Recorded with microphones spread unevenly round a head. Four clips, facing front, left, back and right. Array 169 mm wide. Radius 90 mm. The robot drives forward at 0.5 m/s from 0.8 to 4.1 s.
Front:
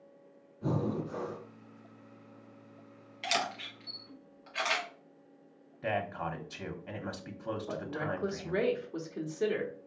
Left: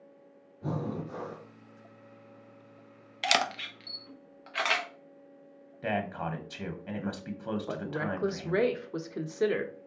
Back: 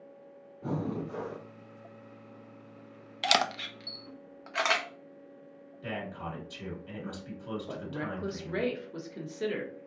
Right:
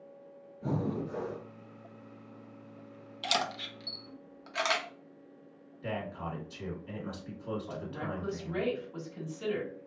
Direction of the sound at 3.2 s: 135° left.